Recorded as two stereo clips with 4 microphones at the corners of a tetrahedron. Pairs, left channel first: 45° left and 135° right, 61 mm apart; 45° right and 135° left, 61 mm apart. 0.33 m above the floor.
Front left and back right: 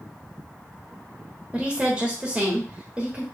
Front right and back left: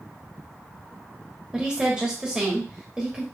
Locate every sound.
1.5 s a woman speaking: 175° right, 1.0 m